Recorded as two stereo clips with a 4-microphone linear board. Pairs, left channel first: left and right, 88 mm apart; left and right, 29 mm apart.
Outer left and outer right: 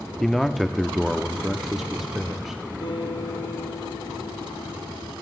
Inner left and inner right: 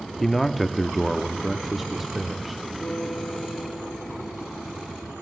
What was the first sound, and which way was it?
A man speaking, centre (ahead or behind).